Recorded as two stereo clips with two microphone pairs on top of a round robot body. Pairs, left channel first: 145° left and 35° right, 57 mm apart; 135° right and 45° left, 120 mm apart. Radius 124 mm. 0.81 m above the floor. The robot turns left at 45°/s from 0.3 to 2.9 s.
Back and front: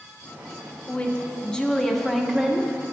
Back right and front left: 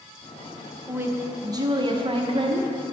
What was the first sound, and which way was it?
A woman speaking, 130° left.